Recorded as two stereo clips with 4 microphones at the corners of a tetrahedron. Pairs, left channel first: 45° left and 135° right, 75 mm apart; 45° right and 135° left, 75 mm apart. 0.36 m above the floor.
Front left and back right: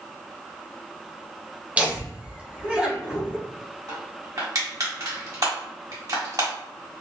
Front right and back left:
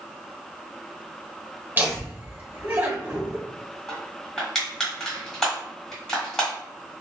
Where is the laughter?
170° left, 0.9 m.